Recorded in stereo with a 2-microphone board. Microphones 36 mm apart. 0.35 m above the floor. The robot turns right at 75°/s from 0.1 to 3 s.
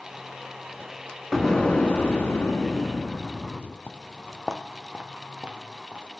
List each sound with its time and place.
1.3 s an explosion: 5° right, 2 m; by 3.8 s 120° left, 2 m
3.9 s footsteps: 45° left (ahead or behind), 0.6 m; by 6.0 s 35° right (ahead or behind), 3 m